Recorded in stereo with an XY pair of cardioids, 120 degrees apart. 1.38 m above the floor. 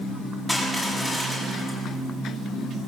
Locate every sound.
0.5 s crushing: straight ahead, 7.5 m